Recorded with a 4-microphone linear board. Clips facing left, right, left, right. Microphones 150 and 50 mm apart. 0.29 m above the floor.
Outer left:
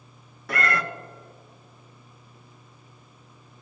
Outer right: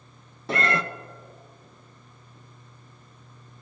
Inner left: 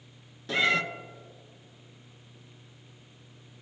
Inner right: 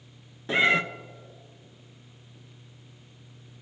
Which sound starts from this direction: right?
A cat meowing, at 0.5 s.